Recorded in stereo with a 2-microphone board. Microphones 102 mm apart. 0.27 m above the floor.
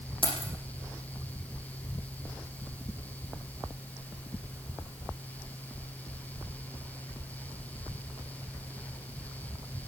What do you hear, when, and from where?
0.2 s keys jangling: 60° left (ahead or behind), 8 m